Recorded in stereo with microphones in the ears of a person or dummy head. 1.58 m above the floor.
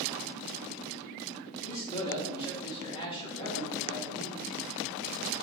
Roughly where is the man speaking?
Left.